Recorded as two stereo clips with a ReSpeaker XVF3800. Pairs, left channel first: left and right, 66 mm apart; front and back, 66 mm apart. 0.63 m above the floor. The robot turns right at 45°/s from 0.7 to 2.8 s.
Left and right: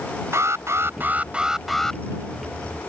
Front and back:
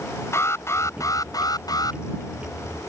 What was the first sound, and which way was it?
An alarm, 45° right.